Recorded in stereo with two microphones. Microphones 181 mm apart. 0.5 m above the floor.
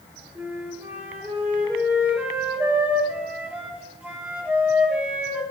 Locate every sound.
0.3 s a flute: 10° right (ahead or behind), 7 m